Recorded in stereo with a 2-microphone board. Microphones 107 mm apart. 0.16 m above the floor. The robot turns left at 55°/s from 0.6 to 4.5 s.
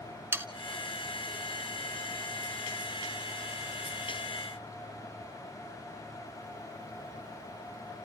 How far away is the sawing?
About 0.9 m.